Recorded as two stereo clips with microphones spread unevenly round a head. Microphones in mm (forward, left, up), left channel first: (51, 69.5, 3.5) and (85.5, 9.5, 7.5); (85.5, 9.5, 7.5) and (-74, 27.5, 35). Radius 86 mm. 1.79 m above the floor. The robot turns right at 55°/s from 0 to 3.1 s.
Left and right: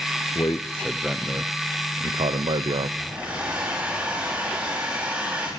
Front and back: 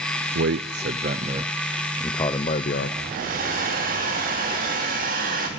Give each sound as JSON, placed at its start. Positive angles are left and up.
{"t": 0.3, "sound": "a man speaking", "azimuth_deg": 175, "distance_m": 0.7}
{"t": 3.0, "sound": "a hair dryer", "azimuth_deg": -150, "distance_m": 3.0}